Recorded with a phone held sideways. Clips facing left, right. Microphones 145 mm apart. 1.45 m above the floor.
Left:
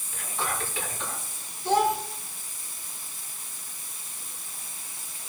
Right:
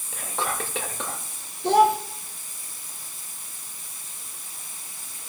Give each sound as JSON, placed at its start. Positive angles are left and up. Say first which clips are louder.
{"t": 0.1, "sound": "whispering", "louder": "right 3 dB", "side_deg": -80, "distance_m": 2.0}
{"t": 1.6, "sound": "a child speaking", "louder": "right 5 dB", "side_deg": -70, "distance_m": 1.3}